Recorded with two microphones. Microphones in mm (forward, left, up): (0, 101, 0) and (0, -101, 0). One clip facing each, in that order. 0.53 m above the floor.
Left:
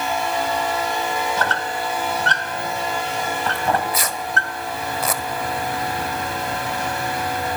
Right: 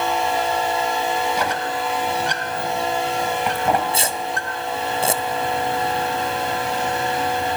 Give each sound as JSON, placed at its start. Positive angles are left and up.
{"t": 1.4, "sound": "a squeak", "side_deg": -15, "distance_m": 2.5}
{"t": 3.5, "sound": "tearing paper", "side_deg": -30, "distance_m": 1.4}